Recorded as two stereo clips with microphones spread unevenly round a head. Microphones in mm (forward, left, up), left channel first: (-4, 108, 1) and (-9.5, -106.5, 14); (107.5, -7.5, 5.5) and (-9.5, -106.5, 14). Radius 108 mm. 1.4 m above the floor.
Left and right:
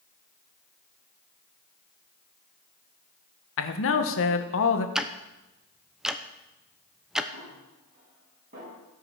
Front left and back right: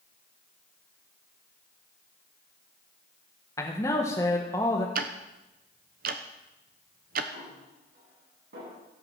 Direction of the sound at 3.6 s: 115° left.